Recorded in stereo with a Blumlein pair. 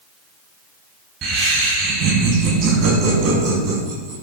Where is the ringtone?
No ringtone in this recording.